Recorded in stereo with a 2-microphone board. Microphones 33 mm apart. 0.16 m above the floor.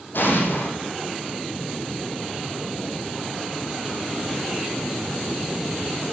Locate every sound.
0.1 s an explosion: 80° left, 4.5 m